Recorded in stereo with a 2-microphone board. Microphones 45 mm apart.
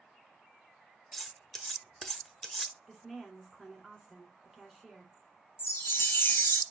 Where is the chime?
65° left (ahead or behind), 0.7 m.